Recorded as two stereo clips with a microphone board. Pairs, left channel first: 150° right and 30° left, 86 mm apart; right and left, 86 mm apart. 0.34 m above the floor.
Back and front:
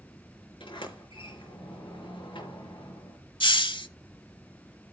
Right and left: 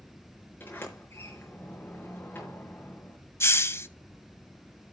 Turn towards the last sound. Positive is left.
turn(degrees=-150)